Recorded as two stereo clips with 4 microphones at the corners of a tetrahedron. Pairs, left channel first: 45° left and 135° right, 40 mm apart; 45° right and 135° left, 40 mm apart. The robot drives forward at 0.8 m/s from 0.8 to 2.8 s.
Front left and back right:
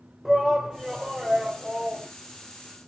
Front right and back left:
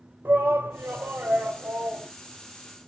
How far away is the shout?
About 1.9 m.